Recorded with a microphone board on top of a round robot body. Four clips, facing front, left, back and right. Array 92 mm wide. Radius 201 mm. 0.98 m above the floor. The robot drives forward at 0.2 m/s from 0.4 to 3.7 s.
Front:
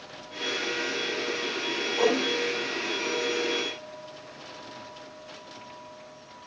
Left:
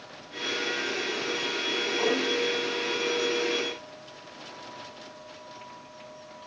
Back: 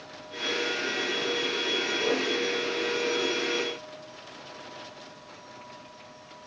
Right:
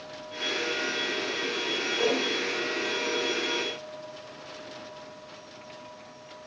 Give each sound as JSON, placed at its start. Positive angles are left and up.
{"t": 2.0, "sound": "a whoosh", "azimuth_deg": 5, "distance_m": 1.0}